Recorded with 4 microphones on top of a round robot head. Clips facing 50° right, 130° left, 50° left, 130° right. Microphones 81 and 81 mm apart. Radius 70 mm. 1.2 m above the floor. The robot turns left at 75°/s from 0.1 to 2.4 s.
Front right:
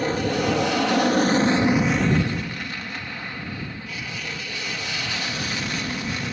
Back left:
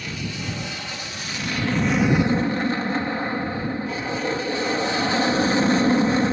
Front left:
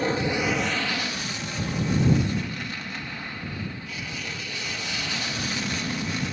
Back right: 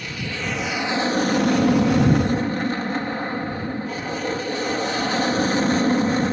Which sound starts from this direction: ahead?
An aircraft, at 0.0 s.